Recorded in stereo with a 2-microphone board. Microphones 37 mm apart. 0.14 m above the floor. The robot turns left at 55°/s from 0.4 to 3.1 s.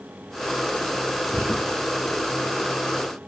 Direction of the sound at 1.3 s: 55° right (ahead or behind).